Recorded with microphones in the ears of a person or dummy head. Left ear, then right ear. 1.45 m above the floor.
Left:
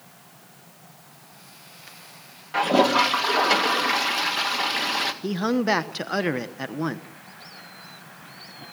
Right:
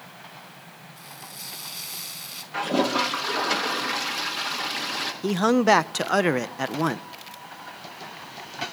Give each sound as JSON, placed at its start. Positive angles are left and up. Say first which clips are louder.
{"t": 1.0, "sound": "frying", "louder": "right 9 dB", "side_deg": -60, "distance_m": 5.5}
{"t": 2.5, "sound": "a toilet flushing", "louder": "left 5 dB", "side_deg": 25, "distance_m": 2.0}
{"t": 5.2, "sound": "a man speaking", "louder": "right 4 dB", "side_deg": -30, "distance_m": 0.9}